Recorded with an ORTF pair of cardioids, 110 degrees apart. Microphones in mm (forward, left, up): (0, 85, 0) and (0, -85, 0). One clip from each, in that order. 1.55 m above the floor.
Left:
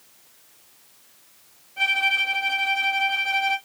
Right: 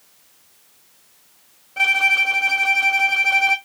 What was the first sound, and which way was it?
A violin, 65° right.